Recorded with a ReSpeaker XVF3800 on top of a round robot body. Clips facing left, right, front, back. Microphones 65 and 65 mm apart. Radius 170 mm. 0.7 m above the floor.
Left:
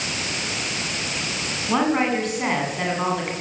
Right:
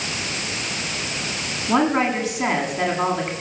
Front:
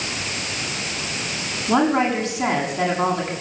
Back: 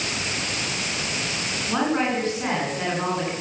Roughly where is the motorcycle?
I don't hear a motorcycle.